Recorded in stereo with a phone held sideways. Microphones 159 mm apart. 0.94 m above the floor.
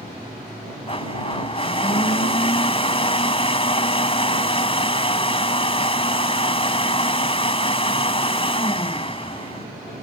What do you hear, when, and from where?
0.9 s a blender: 35° left (ahead or behind)